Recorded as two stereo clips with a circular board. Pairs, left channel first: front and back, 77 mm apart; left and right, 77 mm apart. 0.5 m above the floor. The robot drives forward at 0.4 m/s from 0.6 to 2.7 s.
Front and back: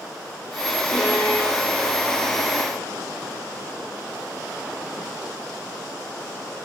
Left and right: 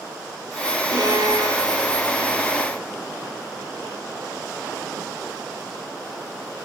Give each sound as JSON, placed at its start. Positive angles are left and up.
{"t": 0.9, "sound": "a violin", "azimuth_deg": -60, "distance_m": 7.0}